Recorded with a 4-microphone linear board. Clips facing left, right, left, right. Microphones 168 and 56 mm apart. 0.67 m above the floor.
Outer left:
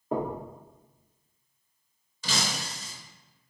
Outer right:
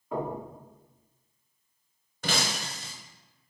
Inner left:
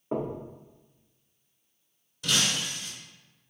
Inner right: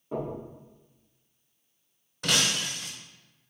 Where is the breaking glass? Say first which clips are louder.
Outer right 2 dB, inner right 1 dB; 60° right (ahead or behind), 0.6 m.